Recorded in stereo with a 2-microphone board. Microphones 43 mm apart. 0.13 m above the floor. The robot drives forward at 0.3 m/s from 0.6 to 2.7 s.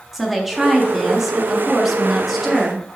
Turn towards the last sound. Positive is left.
turn(degrees=-5)  # may be behind; listen again after turning